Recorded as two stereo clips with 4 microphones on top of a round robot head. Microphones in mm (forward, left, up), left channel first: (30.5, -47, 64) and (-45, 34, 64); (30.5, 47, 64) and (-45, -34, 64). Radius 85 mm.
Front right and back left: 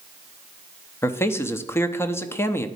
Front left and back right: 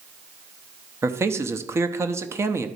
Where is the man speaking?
95° right, 0.8 m.